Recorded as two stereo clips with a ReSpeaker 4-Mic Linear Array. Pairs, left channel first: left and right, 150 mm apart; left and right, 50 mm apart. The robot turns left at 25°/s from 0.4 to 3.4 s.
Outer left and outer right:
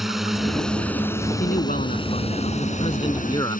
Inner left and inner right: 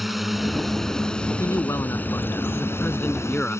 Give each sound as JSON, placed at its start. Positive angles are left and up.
{"t": 0.0, "sound": "a drone", "azimuth_deg": 180}
{"t": 1.4, "sound": "a man speaking", "azimuth_deg": 80}